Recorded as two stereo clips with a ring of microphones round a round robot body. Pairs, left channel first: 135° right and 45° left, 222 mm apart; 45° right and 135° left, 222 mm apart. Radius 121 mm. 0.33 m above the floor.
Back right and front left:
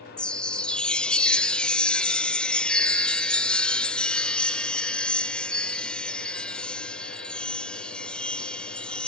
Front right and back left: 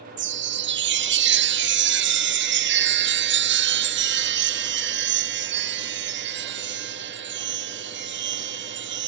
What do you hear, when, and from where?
0.2 s a chime: 140° left, 0.7 m